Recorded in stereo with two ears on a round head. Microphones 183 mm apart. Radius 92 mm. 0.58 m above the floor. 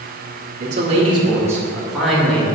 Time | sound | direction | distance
0.6 | a man speaking | 40° right (ahead or behind) | 1.4 m